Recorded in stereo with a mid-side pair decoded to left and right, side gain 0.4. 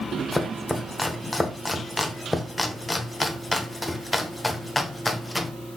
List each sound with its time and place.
0.3 s chopping: 15° left, 0.9 m